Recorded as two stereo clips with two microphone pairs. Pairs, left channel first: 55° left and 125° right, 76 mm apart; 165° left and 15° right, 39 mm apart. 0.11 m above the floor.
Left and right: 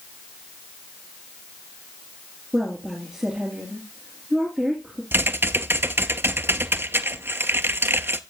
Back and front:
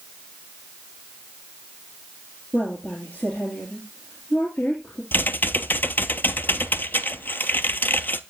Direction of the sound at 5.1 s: Straight behind.